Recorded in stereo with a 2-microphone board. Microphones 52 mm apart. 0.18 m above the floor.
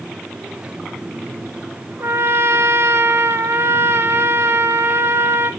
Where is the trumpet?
55° right (ahead or behind), 0.9 m.